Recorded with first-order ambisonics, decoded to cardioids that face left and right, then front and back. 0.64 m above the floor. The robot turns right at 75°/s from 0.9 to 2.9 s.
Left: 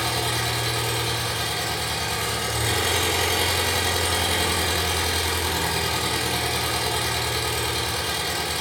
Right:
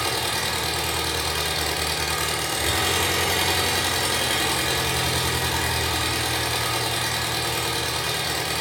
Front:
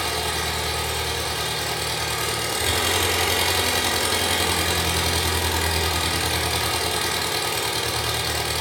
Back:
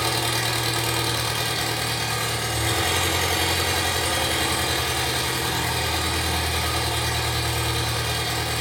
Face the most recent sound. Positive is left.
turn(degrees=-30)